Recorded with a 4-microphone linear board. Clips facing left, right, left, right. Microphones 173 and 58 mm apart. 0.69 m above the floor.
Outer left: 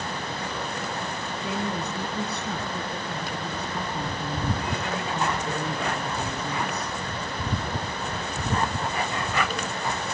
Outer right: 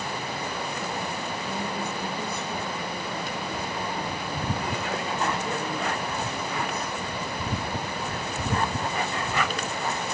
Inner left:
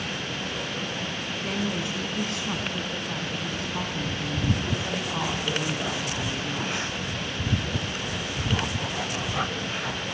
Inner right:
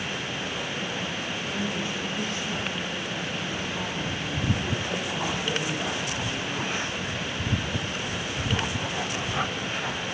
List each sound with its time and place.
1.4 s a woman speaking: 65° left (ahead or behind), 6 m